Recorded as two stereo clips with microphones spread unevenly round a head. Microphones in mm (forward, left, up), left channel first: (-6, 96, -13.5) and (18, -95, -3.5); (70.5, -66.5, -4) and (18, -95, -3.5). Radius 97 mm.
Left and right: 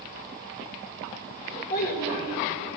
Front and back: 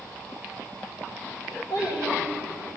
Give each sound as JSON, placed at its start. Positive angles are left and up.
{"t": 1.7, "sound": "a child speaking", "azimuth_deg": 145, "distance_m": 2.5}